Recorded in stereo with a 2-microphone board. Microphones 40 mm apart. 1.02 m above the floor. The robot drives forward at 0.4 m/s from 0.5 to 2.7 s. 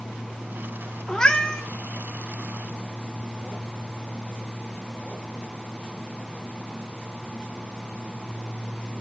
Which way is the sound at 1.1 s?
20° left (ahead or behind).